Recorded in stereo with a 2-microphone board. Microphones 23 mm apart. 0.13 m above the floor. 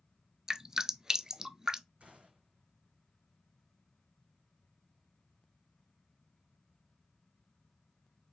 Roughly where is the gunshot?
Right.